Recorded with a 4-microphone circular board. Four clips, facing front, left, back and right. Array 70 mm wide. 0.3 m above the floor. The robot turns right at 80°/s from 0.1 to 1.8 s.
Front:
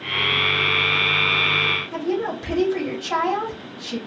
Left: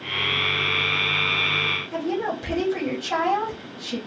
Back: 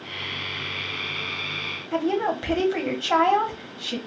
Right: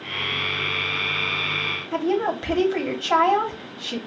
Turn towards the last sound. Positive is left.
turn(degrees=-135)